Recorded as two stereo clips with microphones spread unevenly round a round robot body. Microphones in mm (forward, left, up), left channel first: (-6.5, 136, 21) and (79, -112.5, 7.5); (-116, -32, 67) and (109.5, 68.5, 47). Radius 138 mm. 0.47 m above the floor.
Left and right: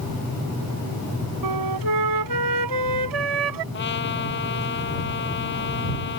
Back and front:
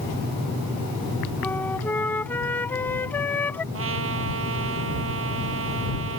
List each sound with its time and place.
1.4 s a flute: 75° right
3.7 s a trumpet: 60° left